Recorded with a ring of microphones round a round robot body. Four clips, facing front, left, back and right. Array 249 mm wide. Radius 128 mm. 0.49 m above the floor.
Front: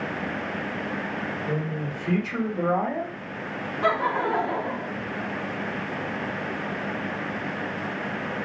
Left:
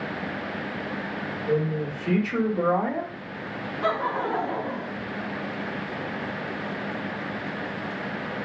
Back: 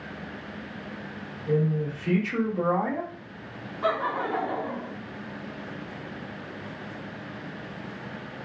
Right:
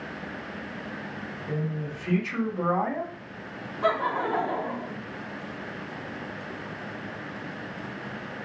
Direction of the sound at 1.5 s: 110° left.